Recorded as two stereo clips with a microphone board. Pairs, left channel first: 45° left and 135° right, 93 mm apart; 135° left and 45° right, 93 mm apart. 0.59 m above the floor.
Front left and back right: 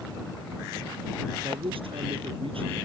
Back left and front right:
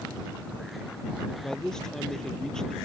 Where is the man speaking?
140° right.